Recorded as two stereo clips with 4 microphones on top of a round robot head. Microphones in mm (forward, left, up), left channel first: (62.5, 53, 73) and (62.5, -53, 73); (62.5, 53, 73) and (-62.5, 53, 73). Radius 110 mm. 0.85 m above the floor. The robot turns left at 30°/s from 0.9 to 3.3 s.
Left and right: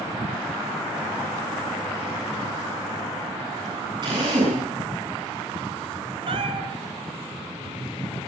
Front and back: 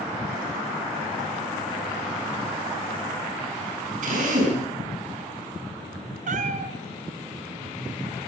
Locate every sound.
4.0 s a drill: 150° right, 7 m
6.3 s a cat meowing: 140° right, 1.7 m